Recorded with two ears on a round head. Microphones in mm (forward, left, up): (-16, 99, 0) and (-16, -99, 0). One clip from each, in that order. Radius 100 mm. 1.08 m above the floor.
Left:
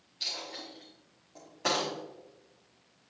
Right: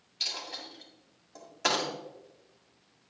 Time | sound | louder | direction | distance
0.2 | a dropped coin | right 2 dB | 40° right (ahead or behind) | 2 m